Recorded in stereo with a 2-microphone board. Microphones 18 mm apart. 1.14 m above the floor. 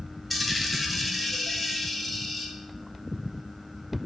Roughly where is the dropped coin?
Centre.